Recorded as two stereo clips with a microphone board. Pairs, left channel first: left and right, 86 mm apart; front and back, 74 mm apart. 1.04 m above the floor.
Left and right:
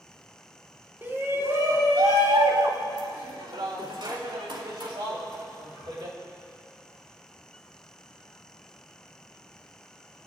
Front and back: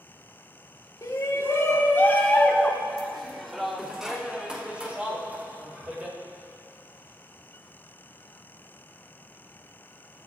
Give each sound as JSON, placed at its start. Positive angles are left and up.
{"t": 1.0, "sound": "a shout", "azimuth_deg": -30, "distance_m": 2.5}